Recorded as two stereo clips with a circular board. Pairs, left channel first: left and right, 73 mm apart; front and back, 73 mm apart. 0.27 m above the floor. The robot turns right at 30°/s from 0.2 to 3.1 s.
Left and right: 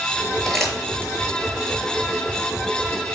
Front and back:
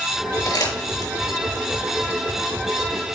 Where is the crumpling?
Straight ahead, 5.5 m; by 1.1 s 20° left, 5.5 m.